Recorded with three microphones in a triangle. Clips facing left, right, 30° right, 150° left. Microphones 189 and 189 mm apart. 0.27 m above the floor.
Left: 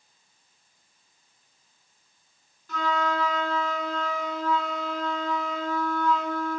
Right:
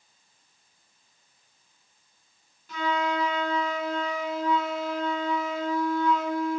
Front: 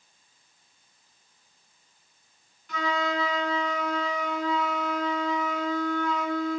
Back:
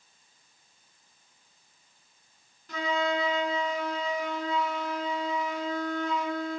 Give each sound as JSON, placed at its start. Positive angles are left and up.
{"t": 2.7, "sound": "a flute", "azimuth_deg": -165, "distance_m": 2.5}